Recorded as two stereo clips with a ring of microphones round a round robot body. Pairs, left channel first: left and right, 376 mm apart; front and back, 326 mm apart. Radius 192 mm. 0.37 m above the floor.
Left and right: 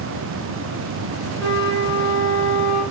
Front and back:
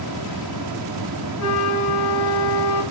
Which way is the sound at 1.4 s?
30° right.